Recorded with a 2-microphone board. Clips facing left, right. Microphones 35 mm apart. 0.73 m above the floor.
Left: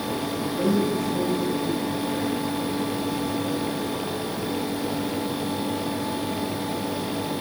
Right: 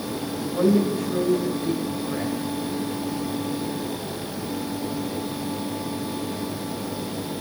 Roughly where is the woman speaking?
Right.